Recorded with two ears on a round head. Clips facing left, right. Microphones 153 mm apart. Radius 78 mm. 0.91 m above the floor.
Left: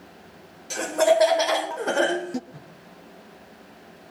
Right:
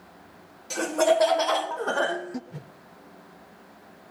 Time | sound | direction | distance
0.7 | laughter | centre (ahead or behind) | 1.3 m
2.5 | a whoosh | 30° right (ahead or behind) | 1.0 m